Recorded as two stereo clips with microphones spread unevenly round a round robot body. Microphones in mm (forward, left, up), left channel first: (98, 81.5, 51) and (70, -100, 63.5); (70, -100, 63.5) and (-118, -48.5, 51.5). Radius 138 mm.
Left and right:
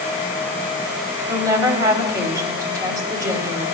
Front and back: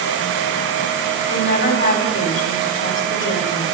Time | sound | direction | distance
1.3 | a woman speaking | 25° right | 2.5 m